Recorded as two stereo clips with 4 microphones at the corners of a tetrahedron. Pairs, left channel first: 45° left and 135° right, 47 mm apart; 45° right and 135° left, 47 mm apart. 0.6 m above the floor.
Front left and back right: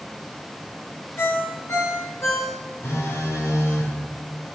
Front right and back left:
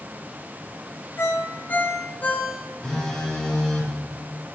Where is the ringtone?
10° left, 6 m.